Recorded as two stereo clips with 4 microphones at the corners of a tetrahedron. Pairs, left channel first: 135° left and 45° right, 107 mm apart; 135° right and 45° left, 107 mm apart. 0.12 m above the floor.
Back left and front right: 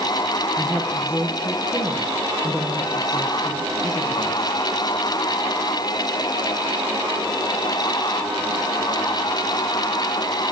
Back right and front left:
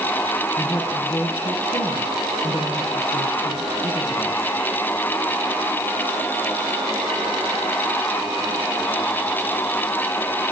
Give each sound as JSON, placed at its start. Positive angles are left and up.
{"t": 0.6, "sound": "a woman speaking", "azimuth_deg": -150, "distance_m": 3.5}